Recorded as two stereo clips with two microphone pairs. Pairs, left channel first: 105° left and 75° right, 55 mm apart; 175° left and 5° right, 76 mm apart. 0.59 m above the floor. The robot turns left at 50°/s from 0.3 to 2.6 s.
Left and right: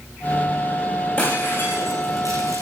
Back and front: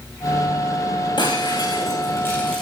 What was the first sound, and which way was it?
Breaking glass, 170° left.